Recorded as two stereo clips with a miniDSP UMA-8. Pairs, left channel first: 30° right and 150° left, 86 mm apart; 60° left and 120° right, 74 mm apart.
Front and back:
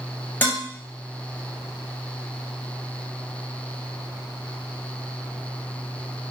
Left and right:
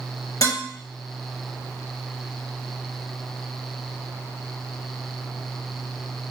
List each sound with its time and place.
0.4 s dishes clattering: 35° left, 2 m